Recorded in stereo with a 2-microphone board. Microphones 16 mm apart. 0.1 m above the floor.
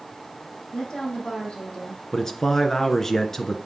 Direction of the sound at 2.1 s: 20° left (ahead or behind).